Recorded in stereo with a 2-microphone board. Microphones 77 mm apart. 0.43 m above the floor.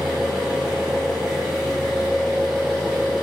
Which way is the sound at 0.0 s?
Centre (ahead or behind).